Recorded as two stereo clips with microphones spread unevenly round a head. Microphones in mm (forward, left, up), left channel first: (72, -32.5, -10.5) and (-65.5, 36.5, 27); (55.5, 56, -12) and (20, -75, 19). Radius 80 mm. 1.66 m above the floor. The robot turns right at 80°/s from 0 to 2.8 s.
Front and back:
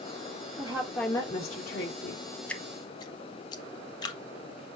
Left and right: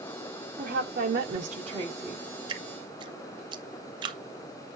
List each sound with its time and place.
0.6 s a woman speaking: 150° right, 2 m; by 2.2 s 15° right, 2 m
2.5 s dripping: 120° right, 0.8 m; by 4.2 s 95° right, 0.8 m